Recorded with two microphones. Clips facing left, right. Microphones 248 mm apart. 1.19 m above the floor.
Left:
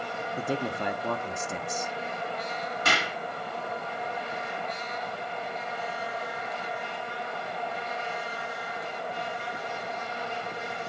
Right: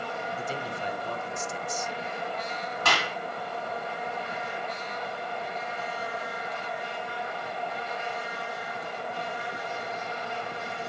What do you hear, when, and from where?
0.4 s a man speaking: 65° left (ahead or behind), 0.9 m
2.9 s a clap: 20° left (ahead or behind), 2 m